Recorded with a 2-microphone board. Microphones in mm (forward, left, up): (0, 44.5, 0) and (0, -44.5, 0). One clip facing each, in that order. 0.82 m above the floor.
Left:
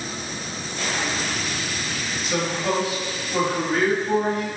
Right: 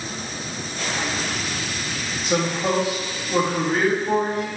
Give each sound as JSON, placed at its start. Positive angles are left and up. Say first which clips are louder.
{"t": 2.2, "sound": "a man speaking", "louder": "right 2 dB", "side_deg": -50, "distance_m": 1.6}